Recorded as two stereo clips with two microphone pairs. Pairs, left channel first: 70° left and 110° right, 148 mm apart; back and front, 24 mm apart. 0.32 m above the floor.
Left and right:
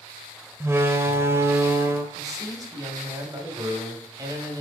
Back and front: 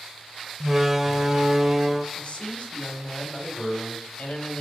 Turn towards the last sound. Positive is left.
turn(degrees=-170)